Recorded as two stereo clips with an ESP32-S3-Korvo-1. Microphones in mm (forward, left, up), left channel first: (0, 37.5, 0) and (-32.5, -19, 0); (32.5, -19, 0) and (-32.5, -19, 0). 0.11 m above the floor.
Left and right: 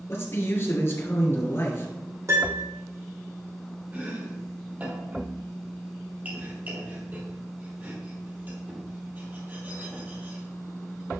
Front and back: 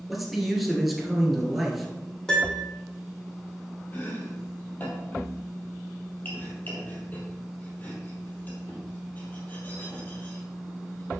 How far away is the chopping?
About 2.5 m.